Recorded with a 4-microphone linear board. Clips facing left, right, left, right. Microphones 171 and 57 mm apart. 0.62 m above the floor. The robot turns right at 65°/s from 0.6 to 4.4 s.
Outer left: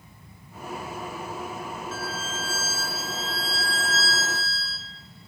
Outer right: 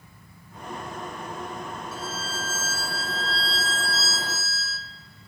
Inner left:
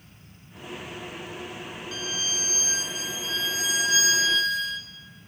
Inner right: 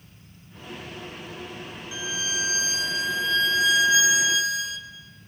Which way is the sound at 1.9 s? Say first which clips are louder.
Outer left 1 dB, inner right 3 dB; 165° right.